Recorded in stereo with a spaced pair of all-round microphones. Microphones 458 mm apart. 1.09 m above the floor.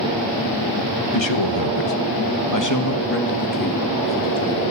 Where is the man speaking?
70° left (ahead or behind), 1.1 m; by 4.7 s 10° left (ahead or behind), 2.5 m.